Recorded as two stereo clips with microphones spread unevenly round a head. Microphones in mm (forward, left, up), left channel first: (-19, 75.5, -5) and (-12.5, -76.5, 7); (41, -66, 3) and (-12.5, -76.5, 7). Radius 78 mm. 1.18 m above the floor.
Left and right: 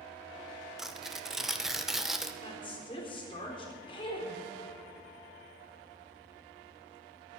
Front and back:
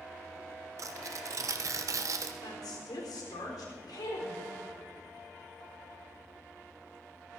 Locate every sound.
0.8 s tearing paper: straight behind, 1.1 m
2.4 s a woman speaking: 30° left, 3.5 m